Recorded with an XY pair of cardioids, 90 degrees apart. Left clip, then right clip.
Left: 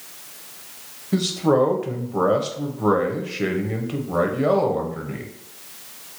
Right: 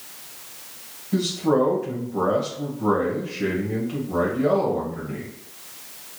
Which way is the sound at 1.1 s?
55° left.